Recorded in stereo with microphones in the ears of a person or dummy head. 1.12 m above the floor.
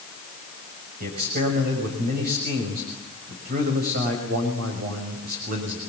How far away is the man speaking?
About 6.5 m.